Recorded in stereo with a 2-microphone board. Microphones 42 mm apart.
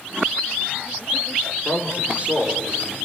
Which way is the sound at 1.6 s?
35° right (ahead or behind).